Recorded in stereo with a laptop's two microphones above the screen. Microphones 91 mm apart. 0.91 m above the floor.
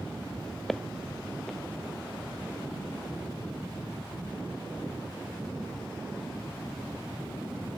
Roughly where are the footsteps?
Centre.